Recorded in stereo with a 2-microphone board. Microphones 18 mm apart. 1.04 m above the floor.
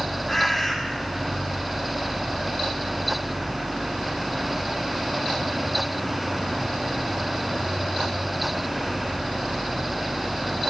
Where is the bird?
20° left (ahead or behind), 1.9 m.